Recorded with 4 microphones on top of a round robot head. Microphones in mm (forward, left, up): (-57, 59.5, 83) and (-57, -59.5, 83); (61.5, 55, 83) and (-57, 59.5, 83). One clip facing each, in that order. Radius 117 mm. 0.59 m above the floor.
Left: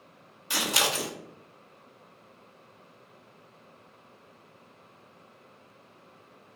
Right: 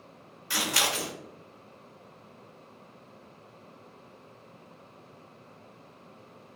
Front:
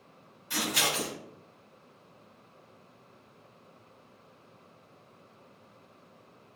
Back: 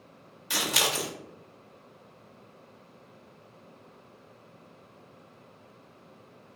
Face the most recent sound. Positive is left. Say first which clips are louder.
# left 1 dB, back 1 dB
turn(degrees=160)